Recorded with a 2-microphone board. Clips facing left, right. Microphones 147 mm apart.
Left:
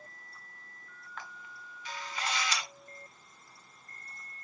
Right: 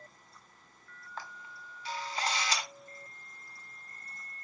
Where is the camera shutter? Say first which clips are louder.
Right 2 dB; 35° right (ahead or behind), 0.8 m.